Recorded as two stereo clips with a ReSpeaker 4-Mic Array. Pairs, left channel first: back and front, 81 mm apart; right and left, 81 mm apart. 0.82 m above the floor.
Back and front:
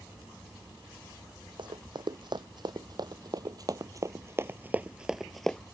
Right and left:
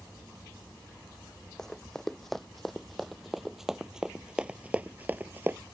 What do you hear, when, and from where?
1.6 s running footsteps: 5° right; by 5.6 s 110° left